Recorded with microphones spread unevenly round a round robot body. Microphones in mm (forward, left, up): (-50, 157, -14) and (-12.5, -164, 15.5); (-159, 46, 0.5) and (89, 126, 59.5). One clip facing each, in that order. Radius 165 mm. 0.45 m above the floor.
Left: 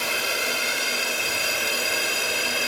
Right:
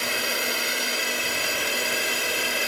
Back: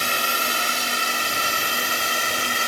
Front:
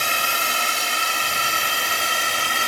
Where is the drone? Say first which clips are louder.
Even, back 1 dB; 10° left; by 2.7 s 15° left.